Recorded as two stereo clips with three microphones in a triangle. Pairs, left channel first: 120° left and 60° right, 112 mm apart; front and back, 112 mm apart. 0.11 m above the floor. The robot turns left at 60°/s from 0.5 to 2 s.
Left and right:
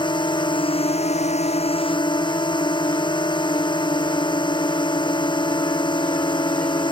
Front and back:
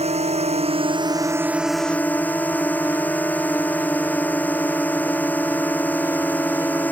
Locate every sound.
0.0 s a drone: 165° left; by 6.9 s 75° left